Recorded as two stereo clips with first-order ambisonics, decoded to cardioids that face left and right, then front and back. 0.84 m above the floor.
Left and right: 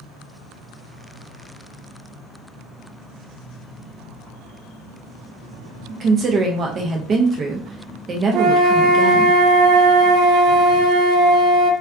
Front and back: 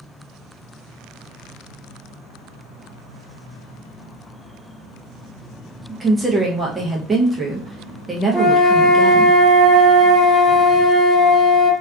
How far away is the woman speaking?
About 0.5 m.